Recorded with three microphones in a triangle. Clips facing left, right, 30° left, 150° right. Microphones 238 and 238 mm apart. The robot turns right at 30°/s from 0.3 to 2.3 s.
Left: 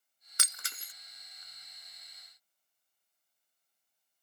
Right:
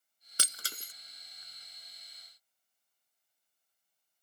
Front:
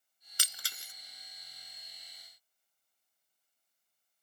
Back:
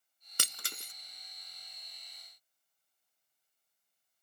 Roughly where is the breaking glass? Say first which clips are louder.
Right 4 dB, back 8 dB; behind right.